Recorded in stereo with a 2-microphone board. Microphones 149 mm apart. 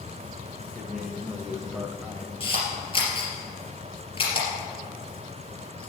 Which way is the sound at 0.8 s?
5° right (ahead or behind).